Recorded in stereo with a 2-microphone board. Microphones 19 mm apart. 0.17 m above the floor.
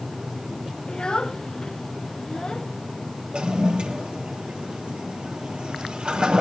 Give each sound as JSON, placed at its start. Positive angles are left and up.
{"t": 0.9, "sound": "a child speaking", "side_deg": 50, "distance_m": 1.6}
{"t": 3.3, "sound": "a toilet flushing", "side_deg": -70, "distance_m": 3.0}